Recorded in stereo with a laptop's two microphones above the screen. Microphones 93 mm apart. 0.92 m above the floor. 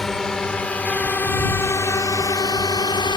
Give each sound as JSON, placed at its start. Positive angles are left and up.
{"t": 0.0, "sound": "a drone", "side_deg": 5}